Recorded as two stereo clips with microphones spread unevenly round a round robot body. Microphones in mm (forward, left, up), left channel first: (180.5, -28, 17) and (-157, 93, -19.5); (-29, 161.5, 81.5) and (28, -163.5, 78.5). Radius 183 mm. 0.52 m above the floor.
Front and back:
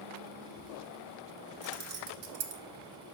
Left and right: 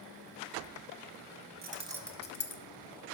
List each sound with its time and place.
1.6 s keys jangling: 135° right, 0.9 m; by 2.6 s 130° left, 0.9 m